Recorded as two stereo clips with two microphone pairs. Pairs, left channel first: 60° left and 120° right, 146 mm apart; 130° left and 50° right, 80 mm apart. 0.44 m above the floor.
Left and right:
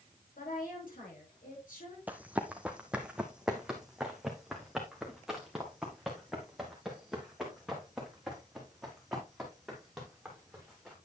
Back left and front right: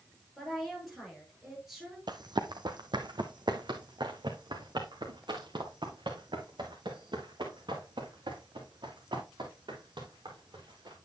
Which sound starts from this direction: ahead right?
Running footsteps, at 2.1 s.